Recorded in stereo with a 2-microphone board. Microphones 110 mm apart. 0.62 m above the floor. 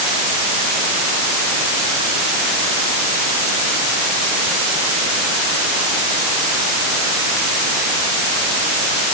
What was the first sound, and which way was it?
Only background noise.